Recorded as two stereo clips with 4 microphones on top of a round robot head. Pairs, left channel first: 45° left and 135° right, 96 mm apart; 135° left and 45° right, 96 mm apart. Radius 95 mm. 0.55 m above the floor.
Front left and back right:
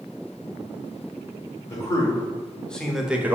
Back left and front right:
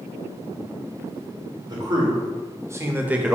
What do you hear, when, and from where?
1.7 s a man speaking: 5° right, 1.8 m; by 3.4 s 120° right, 1.1 m